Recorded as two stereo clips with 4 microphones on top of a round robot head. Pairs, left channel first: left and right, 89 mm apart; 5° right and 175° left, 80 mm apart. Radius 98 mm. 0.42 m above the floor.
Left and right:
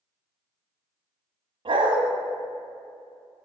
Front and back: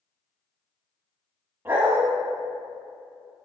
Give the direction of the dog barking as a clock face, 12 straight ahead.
4 o'clock.